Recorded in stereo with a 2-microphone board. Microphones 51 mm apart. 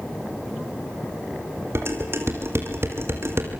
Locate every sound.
1.8 s dishes clattering: 55° right (ahead or behind), 3.5 m